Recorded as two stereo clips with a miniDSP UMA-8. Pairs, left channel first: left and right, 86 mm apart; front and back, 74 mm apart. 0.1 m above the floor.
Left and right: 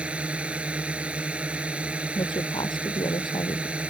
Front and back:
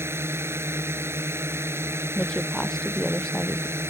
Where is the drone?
155° right.